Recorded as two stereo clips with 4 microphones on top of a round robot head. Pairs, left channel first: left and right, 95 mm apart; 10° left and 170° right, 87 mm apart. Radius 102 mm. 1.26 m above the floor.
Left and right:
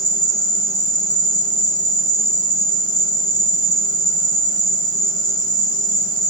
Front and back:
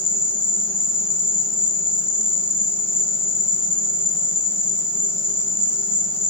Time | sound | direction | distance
0.0 | an insect | 10° left | 1.7 m